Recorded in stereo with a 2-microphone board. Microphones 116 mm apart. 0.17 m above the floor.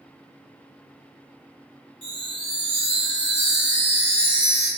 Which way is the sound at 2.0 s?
75° left (ahead or behind).